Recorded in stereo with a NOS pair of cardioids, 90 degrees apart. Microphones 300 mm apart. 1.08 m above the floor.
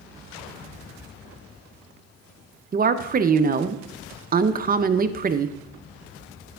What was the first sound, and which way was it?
A woman speaking, 30° right.